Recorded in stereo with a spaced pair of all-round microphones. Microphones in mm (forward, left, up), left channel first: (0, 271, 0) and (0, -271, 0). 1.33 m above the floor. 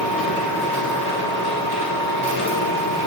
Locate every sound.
0.0 s a machine running: 45° left (ahead or behind), 3 m